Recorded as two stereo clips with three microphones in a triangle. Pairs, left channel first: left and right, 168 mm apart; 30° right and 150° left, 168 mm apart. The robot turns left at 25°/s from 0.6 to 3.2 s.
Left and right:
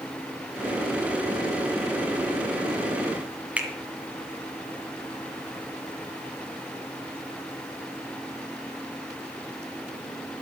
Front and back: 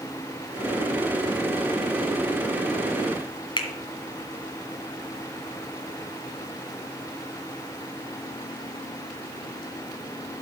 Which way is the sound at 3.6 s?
20° right.